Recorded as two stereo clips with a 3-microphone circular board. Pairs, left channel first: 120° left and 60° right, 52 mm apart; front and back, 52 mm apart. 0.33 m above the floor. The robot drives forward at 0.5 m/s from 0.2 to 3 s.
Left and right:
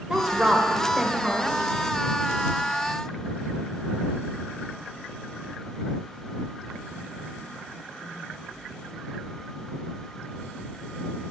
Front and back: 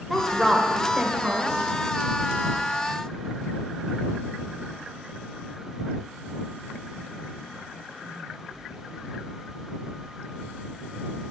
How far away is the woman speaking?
About 0.9 m.